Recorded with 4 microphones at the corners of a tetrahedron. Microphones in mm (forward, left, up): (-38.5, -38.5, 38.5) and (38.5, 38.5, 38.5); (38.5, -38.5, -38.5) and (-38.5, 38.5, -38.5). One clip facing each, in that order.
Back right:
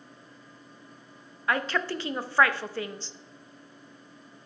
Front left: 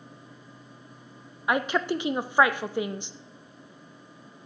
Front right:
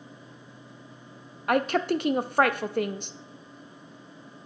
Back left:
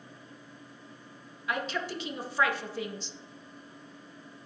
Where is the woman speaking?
30° right, 0.5 m.